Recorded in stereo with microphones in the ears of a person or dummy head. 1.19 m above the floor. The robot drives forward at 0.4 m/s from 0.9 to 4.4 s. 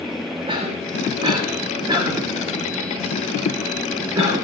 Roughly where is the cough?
Right.